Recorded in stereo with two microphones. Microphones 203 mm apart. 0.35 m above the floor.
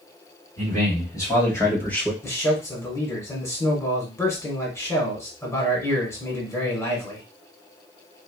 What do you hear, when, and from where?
0.6 s a man speaking: 20° left (ahead or behind), 2.5 m; by 2.1 s 5° left (ahead or behind), 1.2 m
2.2 s a man speaking: 15° left (ahead or behind), 1.4 m